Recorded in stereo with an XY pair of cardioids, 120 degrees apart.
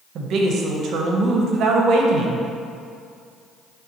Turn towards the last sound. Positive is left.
turn(degrees=-60)